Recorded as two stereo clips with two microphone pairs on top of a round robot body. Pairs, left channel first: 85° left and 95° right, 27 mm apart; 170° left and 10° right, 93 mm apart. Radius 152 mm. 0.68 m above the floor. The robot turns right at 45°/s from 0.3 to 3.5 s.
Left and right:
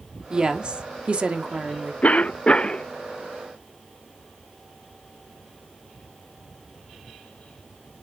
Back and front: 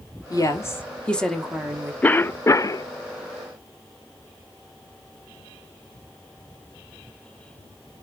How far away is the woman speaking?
About 1.8 m.